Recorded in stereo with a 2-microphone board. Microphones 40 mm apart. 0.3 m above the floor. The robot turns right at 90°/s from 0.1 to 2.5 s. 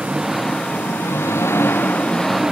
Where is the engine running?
25° right; by 2.5 s 170° right.